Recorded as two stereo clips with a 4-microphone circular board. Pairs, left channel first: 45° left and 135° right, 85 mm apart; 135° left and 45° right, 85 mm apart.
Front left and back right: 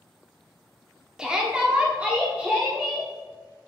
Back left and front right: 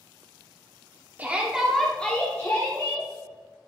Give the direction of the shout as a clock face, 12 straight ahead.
2 o'clock.